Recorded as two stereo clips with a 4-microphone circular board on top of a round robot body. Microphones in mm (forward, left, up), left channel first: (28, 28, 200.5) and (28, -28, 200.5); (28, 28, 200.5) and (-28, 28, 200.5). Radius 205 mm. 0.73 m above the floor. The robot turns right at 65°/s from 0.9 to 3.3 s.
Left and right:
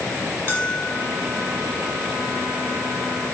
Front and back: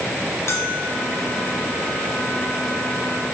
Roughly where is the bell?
Ahead left.